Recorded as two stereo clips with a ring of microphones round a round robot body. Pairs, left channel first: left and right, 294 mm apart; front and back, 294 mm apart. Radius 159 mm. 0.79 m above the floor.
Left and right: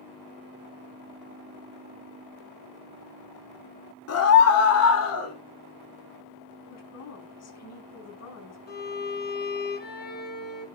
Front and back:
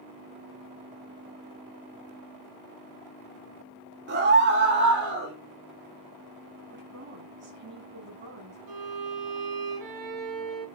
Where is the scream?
125° left, 2.5 m.